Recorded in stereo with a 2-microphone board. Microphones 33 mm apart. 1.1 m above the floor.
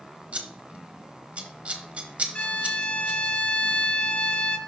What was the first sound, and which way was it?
Scissors, 45° right (ahead or behind).